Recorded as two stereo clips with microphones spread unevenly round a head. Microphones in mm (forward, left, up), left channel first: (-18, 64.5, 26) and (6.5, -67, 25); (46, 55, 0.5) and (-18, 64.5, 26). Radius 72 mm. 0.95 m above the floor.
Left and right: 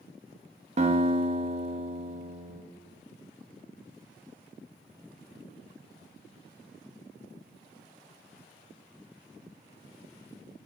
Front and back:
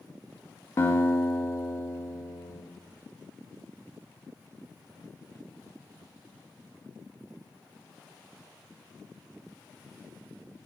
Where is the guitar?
50° right, 1.7 m.